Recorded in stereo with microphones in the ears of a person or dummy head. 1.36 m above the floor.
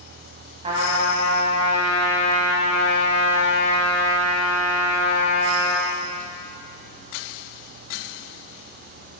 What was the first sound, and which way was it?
A trumpet, 35° right (ahead or behind).